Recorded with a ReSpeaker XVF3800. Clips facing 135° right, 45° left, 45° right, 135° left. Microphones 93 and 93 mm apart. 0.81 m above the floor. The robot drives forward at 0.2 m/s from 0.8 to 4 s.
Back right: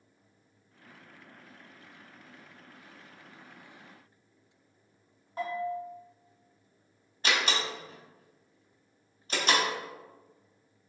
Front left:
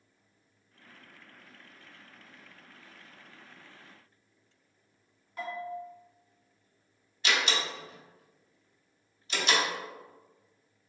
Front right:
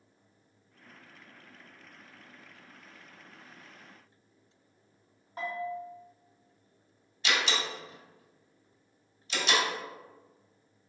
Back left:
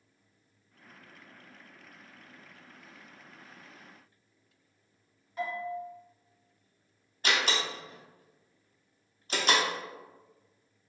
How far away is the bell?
About 1.4 m.